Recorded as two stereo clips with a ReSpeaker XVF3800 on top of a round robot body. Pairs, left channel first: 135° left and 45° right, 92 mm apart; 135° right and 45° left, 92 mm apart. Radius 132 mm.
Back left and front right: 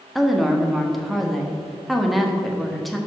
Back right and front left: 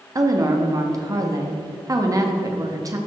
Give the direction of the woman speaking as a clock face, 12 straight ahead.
11 o'clock.